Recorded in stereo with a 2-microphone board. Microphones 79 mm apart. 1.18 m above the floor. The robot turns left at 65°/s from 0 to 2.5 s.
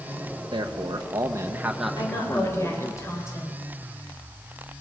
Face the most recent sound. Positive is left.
turn(degrees=40)